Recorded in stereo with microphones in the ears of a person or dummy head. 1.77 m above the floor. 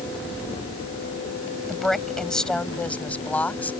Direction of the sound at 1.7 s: Centre (ahead or behind).